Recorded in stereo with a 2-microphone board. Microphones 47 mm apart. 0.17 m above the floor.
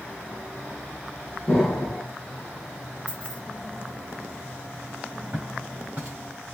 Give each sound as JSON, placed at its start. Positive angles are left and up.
{"t": 1.5, "sound": "an explosion", "side_deg": -5, "distance_m": 3.5}
{"t": 3.1, "sound": "keys jangling", "side_deg": -20, "distance_m": 1.7}
{"t": 5.3, "sound": "footsteps", "side_deg": -25, "distance_m": 2.5}